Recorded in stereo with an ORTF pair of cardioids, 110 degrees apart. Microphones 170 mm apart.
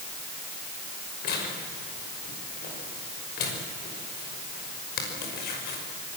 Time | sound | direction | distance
1.2 | tearing paper | 70° left | 6 m